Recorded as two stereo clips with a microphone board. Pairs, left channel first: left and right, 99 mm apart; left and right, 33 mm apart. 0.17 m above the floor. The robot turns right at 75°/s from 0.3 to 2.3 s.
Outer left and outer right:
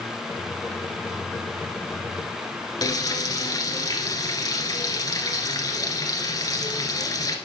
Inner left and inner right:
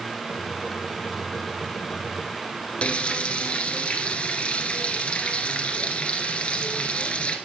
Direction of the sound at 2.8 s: 40° left (ahead or behind).